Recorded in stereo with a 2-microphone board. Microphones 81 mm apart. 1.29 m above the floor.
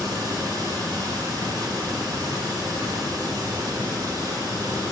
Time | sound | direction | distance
0.0 | running water | 55° right (ahead or behind) | 1.5 m